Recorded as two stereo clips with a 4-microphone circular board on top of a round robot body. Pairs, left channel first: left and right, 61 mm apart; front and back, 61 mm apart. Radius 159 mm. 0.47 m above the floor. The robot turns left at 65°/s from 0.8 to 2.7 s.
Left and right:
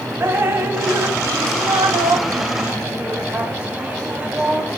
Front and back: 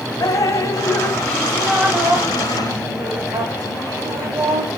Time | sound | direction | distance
0.2 | dripping | 35° right | 0.9 m